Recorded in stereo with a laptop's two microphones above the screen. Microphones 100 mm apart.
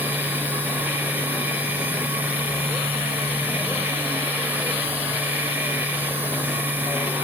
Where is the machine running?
15° right (ahead or behind), 6 m.